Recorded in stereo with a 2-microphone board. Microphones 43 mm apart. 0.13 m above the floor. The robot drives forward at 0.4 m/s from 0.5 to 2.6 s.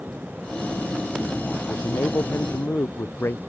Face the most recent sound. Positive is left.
turn(degrees=65)  # may be behind; listen again after turning